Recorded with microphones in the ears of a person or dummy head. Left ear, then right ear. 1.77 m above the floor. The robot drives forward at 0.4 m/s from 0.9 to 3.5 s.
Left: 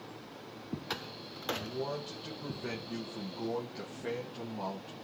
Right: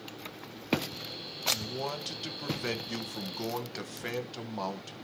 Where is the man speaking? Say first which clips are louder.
Right 2 dB; 60° right (ahead or behind), 1.7 m; by 5.0 s 75° right (ahead or behind), 1.6 m.